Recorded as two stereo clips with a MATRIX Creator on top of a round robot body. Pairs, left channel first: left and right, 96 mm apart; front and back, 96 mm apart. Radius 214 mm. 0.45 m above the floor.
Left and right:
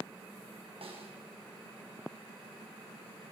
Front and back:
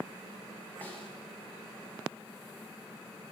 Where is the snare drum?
70° right, 5.5 m.